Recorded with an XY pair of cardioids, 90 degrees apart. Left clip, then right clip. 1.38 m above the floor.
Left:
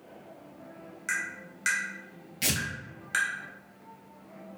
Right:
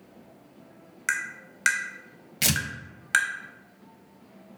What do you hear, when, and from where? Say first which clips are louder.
1.1 s tapping: right 3 dB; 65° right, 0.5 m
2.4 s tearing paper: right 4 dB; 70° right, 0.6 m